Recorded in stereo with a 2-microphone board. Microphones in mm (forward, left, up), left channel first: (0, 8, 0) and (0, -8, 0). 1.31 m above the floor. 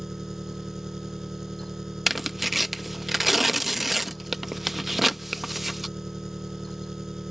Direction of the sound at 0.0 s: 35° right (ahead or behind).